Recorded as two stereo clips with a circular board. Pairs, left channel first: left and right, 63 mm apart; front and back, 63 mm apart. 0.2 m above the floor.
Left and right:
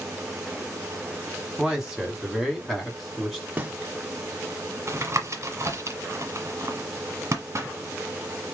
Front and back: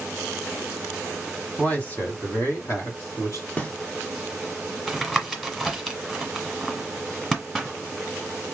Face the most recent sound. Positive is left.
turn(degrees=-85)